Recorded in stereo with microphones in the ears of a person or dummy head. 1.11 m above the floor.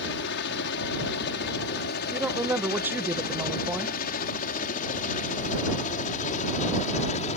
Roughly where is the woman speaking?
Centre.